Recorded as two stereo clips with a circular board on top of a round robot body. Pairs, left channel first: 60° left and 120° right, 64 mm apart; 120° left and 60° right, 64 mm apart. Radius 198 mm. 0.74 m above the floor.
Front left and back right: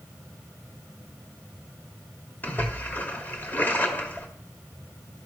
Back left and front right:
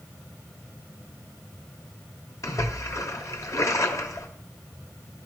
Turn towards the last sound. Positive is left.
turn(degrees=115)